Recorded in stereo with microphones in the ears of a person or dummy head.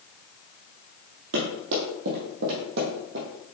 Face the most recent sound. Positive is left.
turn(degrees=-55)  # may be behind; listen again after turning